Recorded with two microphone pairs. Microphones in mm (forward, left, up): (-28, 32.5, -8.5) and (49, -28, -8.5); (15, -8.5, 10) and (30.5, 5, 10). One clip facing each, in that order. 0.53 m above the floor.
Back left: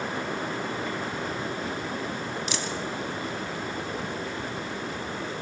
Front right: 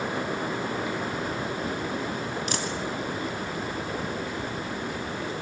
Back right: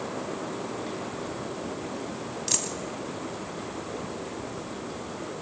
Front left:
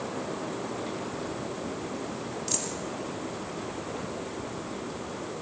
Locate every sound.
2.5 s a dropped coin: 80° right, 1.8 m